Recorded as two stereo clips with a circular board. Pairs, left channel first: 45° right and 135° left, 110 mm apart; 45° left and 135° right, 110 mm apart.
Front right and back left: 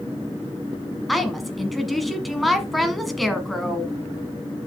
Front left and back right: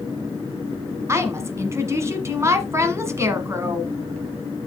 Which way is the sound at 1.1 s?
135° right.